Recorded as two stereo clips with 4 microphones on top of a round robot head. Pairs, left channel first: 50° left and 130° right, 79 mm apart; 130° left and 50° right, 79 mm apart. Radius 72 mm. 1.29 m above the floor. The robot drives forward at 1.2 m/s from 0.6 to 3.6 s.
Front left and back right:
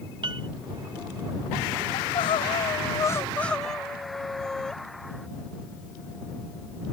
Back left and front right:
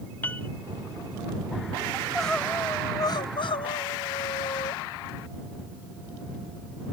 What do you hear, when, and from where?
0.2 s a piano: 160° right
1.9 s crying: 40° left; by 4.8 s 130° left